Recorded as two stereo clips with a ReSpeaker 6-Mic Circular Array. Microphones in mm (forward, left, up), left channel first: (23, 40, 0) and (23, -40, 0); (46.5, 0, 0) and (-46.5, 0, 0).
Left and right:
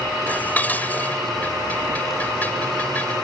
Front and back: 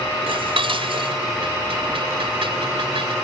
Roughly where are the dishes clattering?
Behind.